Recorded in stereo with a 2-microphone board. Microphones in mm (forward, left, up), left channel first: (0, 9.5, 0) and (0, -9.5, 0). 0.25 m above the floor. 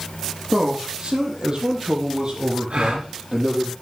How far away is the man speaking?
About 7 m.